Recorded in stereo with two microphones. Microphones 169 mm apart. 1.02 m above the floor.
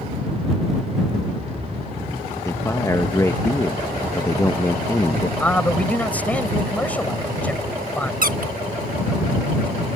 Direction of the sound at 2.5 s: 20° left (ahead or behind).